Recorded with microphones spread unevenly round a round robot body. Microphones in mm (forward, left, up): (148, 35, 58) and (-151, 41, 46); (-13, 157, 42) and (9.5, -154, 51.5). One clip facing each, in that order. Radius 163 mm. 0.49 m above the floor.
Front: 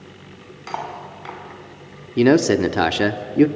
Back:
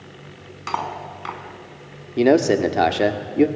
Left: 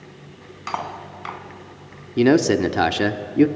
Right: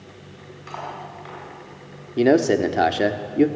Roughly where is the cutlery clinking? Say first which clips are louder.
Back 2 dB, left 3 dB; left.